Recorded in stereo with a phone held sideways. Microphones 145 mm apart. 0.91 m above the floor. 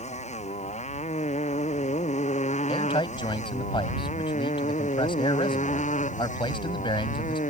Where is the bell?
I don't hear a bell.